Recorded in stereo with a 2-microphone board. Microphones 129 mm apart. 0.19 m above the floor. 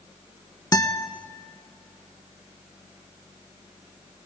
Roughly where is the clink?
No clink in this recording.